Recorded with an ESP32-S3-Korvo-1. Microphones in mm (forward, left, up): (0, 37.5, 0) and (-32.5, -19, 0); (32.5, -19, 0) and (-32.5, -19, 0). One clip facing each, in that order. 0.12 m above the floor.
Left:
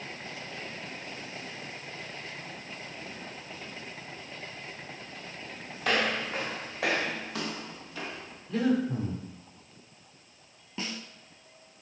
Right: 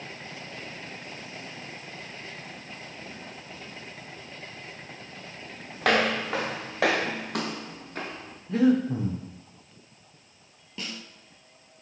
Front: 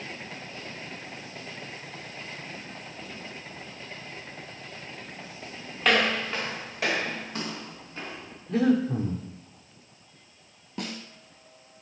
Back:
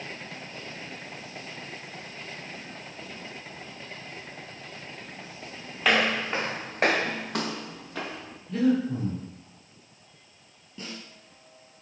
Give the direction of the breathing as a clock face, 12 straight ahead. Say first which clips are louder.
Right 5 dB, front 1 dB; 2 o'clock.